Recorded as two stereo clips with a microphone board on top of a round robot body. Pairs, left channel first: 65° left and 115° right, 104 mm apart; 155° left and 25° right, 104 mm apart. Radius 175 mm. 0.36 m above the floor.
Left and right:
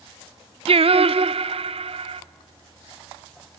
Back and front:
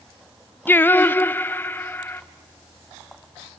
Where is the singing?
130° right, 0.6 m.